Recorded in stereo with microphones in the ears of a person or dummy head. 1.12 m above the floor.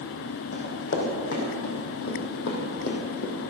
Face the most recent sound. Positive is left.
turn(degrees=65)  # may be behind; listen again after turning